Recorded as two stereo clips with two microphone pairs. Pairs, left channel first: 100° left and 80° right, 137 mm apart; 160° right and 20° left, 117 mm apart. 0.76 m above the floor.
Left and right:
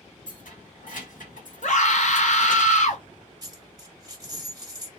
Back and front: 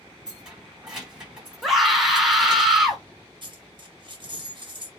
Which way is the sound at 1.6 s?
110° left.